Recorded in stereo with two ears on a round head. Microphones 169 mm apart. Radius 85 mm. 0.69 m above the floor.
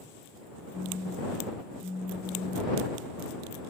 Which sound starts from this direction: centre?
A phone buzzing, at 0.7 s.